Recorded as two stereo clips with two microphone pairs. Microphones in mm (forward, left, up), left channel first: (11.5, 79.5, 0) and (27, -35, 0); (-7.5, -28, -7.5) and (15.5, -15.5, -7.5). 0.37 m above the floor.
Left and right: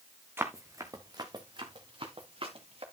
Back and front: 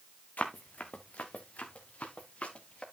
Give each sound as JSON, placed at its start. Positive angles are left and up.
{"t": 0.4, "sound": "running footsteps", "azimuth_deg": -150, "distance_m": 1.9}